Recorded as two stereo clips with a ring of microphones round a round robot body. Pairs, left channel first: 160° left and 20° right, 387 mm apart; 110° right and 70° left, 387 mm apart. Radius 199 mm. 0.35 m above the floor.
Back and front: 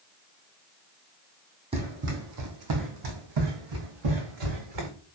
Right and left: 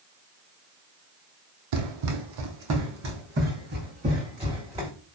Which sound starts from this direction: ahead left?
Running footsteps, at 1.7 s.